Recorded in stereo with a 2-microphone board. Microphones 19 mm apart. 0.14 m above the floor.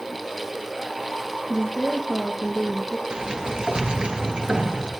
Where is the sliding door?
60° right (ahead or behind), 2.5 m.